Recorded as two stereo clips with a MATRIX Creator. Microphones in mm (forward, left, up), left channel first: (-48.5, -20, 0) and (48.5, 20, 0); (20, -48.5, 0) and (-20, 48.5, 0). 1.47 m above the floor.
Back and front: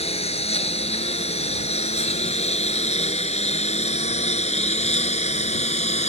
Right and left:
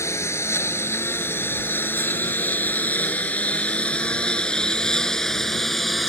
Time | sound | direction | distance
0.0 | a lawn mower | 135° right | ?